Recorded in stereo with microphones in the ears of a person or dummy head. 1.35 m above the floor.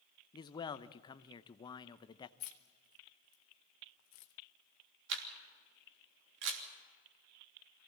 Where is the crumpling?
No crumpling in this recording.